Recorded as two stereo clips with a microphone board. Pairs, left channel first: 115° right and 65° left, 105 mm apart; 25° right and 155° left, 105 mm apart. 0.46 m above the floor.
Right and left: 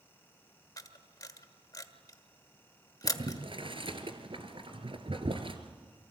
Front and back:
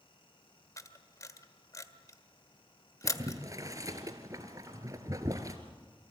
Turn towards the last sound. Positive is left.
turn(degrees=100)